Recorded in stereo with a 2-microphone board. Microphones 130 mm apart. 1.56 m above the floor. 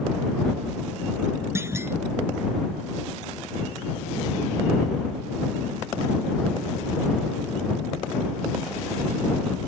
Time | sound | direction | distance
1.6 | a clunk | 20° right (ahead or behind) | ?